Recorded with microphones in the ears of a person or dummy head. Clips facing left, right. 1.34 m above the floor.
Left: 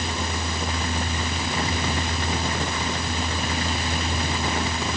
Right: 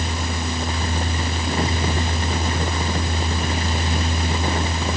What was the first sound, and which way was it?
Only background noise.